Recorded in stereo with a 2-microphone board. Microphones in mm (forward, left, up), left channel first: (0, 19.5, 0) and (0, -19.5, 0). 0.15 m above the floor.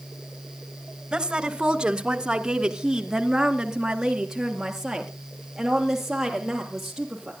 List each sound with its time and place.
1.1 s a woman speaking: 15° right (ahead or behind), 1.2 m; by 7.3 s 10° right (ahead or behind), 4.5 m